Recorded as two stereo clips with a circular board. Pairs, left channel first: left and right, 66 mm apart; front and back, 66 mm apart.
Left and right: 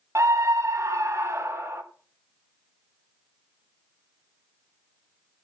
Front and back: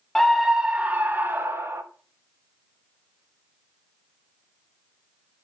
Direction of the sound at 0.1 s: 85° right.